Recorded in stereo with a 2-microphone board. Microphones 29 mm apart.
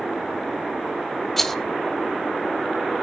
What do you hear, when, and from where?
1.4 s a rattle: 10° left (ahead or behind), 0.7 m